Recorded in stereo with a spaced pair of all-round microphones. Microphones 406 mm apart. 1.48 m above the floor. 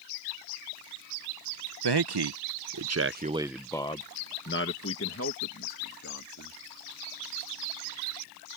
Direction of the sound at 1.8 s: 75° right (ahead or behind).